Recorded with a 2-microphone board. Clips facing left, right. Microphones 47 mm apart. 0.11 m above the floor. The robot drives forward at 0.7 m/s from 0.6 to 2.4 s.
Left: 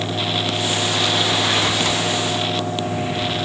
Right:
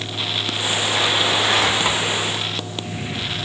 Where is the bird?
I don't hear a bird.